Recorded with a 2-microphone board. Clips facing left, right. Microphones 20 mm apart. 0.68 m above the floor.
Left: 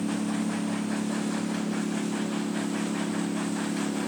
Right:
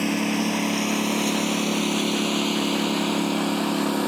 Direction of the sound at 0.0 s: 55° right (ahead or behind).